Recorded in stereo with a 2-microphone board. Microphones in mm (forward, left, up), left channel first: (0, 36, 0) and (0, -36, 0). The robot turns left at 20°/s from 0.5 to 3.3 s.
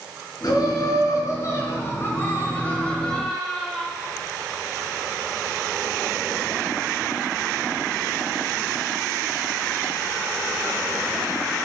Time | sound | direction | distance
0.4 | laughter | 65° left | 4.5 m